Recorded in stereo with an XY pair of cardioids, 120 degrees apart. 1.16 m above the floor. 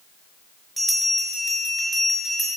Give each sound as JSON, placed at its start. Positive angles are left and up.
{"t": 0.8, "sound": "a bell", "azimuth_deg": -5, "distance_m": 5.0}